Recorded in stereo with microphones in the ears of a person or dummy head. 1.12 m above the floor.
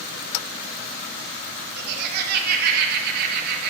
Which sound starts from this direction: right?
Laughter, at 1.8 s.